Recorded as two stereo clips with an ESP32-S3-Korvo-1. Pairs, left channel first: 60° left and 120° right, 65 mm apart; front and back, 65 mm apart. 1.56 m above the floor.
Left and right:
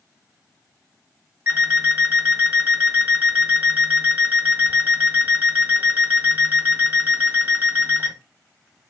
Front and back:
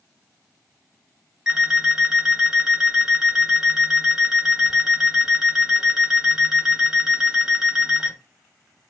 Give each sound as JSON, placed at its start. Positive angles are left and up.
{"t": 1.5, "sound": "an alarm clock", "azimuth_deg": -110, "distance_m": 1.2}